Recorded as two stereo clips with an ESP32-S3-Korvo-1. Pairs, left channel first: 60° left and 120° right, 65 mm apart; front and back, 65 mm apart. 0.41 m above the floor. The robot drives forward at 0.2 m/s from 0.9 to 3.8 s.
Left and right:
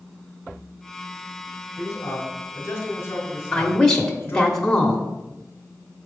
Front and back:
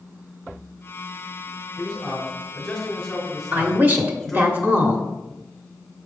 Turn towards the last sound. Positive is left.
turn(degrees=135)